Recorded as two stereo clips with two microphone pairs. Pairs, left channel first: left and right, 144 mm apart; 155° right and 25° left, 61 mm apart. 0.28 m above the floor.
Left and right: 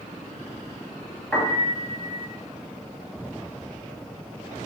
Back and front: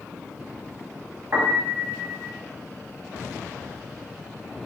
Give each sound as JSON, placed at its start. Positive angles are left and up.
{"t": 1.3, "sound": "a piano", "azimuth_deg": 10, "distance_m": 1.8}